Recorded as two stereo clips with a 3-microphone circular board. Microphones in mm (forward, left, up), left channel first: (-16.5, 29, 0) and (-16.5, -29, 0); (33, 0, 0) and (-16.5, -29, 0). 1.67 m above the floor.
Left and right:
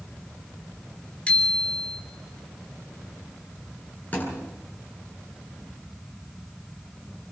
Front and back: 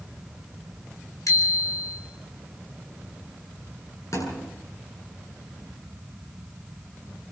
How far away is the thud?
About 9 m.